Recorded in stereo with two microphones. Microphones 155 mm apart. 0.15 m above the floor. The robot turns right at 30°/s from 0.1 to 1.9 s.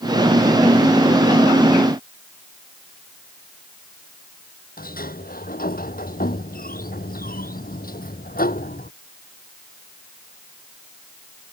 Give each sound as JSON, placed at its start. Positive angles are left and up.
{"t": 4.8, "sound": "a sliding door", "side_deg": 70}